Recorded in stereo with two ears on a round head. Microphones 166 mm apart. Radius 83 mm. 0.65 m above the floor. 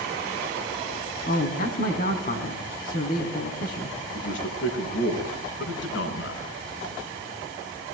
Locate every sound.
1.3 s a man speaking: 50° left (ahead or behind), 5 m
4.1 s a man speaking: 70° left (ahead or behind), 6 m